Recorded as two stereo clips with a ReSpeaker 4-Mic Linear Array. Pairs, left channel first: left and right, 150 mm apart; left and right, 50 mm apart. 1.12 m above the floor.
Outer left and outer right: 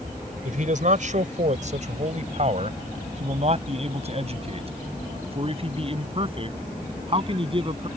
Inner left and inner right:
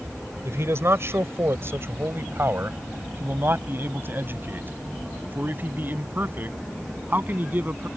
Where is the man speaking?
55° right (ahead or behind); by 7.9 s 35° right (ahead or behind).